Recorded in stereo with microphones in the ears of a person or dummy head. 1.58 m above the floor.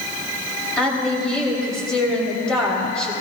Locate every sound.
0.8 s a woman speaking: 5° left (ahead or behind), 4.5 m